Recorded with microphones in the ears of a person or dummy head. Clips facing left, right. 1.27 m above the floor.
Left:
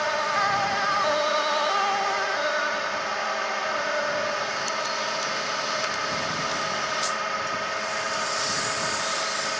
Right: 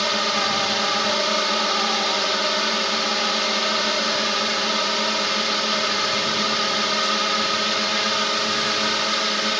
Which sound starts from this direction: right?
A drone, at 0.0 s.